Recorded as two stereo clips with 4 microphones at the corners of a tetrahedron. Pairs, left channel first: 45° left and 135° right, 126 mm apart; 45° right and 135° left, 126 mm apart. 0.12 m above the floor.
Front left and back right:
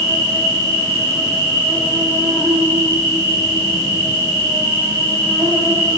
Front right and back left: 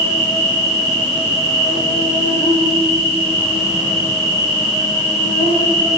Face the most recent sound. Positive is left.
turn(degrees=-70)